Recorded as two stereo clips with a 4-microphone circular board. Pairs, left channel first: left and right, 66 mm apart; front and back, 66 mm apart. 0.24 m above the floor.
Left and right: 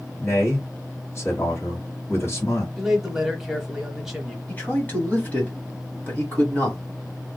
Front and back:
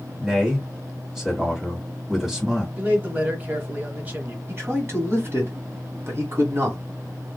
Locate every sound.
0.2 s a man speaking: 100° left, 1.8 m
2.8 s a man speaking: 170° right, 1.0 m
4.5 s a man speaking: 140° left, 1.7 m